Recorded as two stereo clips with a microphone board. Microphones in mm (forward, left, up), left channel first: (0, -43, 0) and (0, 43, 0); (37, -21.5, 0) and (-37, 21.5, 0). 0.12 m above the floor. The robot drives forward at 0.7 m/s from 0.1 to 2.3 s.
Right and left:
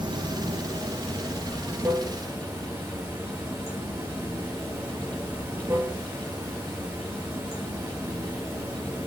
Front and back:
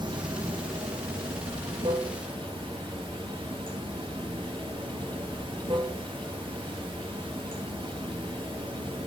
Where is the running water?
120° left, 1.4 m; by 9.1 s 150° left, 2.5 m.